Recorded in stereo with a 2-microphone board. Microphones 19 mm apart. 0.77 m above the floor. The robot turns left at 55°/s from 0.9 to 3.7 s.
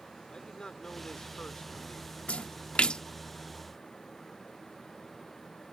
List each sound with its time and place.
0.3 s a man speaking: 125° left; by 2.2 s 55° left
2.3 s a splash: 85° left; by 3.0 s 45° left (ahead or behind)